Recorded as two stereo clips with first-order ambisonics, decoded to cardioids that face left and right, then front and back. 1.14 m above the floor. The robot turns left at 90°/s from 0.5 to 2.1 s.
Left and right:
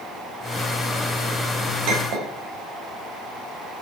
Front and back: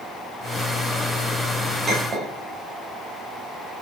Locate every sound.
1.9 s a clink: 95° right, 3 m; by 2.3 s 120° right, 3 m